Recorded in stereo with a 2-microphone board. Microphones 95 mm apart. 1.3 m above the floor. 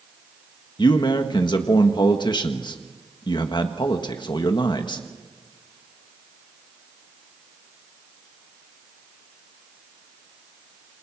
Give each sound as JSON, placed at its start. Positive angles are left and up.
{"t": 0.8, "sound": "a man speaking", "side_deg": 50, "distance_m": 1.6}